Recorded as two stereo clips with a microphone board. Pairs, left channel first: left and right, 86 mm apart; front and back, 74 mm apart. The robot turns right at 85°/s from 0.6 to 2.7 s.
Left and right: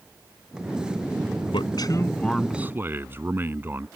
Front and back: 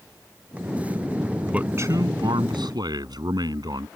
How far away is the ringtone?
No ringtone in this recording.